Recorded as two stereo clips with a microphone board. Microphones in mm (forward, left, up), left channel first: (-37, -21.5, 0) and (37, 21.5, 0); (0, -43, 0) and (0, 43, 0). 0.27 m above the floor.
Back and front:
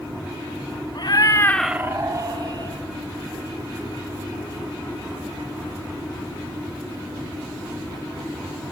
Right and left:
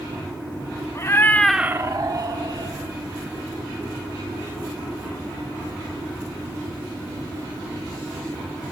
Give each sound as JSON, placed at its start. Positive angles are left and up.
{"t": 0.9, "sound": "a cat meowing", "azimuth_deg": -140, "distance_m": 1.0}